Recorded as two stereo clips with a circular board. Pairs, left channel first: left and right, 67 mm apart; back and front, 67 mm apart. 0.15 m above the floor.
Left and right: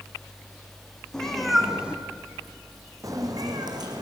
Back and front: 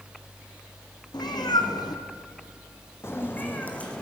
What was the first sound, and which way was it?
A cat meowing, 170° left.